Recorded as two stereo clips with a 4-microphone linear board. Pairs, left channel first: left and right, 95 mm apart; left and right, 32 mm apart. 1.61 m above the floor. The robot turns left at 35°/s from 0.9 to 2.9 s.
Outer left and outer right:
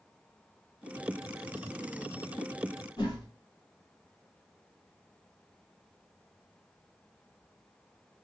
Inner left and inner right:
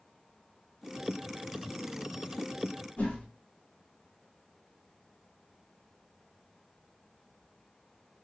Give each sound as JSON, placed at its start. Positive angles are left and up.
{"t": 3.0, "sound": "a whoosh", "side_deg": 50, "distance_m": 1.3}